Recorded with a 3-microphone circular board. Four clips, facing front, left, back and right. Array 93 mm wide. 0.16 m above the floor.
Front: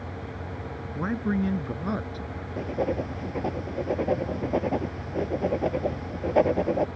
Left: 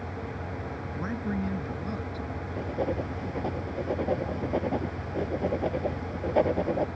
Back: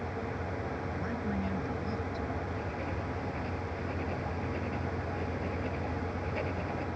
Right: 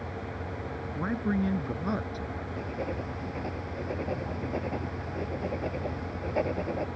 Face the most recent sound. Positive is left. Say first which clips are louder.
# left 6 dB, front 9 dB
turn(degrees=25)